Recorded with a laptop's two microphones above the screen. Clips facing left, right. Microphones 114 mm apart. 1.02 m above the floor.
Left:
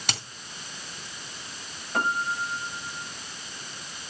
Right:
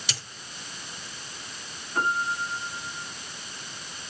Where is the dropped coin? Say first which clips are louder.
Left 7 dB; 55° left (ahead or behind), 3 m.